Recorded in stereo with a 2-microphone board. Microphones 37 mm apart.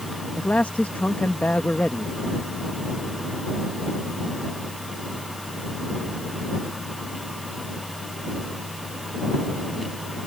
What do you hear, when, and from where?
0.4 s a man speaking: 50° left (ahead or behind)